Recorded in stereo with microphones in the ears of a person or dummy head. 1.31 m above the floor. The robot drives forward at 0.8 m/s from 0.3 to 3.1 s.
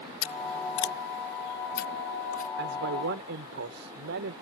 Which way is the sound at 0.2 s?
70° left (ahead or behind).